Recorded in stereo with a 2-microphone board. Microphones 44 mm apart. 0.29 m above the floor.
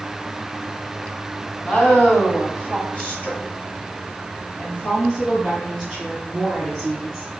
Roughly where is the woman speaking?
Left.